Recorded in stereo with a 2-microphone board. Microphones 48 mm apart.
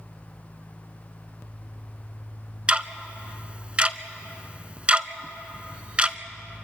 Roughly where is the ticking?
Right.